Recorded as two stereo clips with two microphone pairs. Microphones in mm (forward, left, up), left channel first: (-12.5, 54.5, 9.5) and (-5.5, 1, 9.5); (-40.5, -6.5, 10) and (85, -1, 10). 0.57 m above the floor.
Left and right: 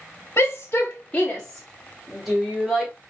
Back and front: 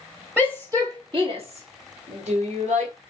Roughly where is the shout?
Left.